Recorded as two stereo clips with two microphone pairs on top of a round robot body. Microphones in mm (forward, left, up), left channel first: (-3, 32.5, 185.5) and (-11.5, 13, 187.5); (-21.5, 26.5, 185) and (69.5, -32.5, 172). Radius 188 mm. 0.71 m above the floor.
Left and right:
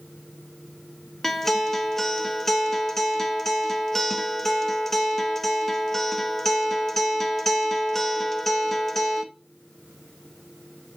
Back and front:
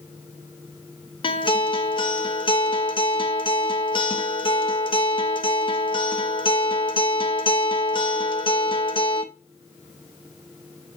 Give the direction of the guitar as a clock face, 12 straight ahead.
8 o'clock.